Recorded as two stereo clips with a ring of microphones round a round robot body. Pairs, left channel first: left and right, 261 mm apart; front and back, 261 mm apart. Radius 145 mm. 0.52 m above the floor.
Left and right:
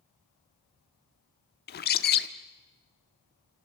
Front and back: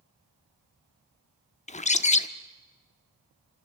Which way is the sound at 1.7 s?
55° left.